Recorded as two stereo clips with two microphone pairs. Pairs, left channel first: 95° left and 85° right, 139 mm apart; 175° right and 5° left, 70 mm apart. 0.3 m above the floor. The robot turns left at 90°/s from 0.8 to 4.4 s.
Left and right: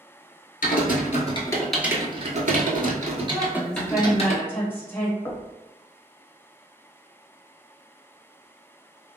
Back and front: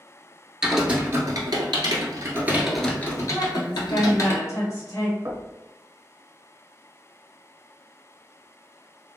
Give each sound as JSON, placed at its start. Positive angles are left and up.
{"t": 0.6, "sound": "typing on a keyboard", "azimuth_deg": 90, "distance_m": 0.8}
{"t": 3.3, "sound": "a woman speaking", "azimuth_deg": -95, "distance_m": 1.3}
{"t": 5.2, "sound": "knocking", "azimuth_deg": 30, "distance_m": 0.8}